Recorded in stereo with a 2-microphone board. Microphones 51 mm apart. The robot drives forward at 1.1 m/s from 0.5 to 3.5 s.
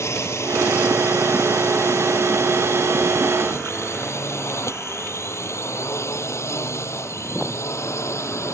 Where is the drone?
60° left (ahead or behind); by 8.5 s 65° left (ahead or behind).